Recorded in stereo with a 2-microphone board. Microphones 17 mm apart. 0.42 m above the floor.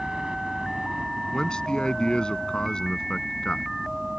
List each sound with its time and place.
0.0 s a helicopter: 55° right (ahead or behind)
1.3 s a man speaking: 60° left (ahead or behind)